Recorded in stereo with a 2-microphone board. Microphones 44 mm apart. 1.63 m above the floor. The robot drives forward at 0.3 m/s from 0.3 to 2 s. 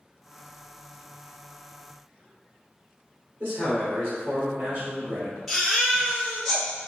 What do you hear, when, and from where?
3.4 s a man speaking: 75° right (ahead or behind), 1.9 m
5.5 s a baby crying: centre (ahead or behind), 1.5 m